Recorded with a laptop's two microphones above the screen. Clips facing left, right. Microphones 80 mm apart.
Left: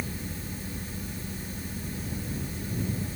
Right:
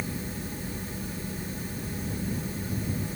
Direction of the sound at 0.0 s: 20° right (ahead or behind).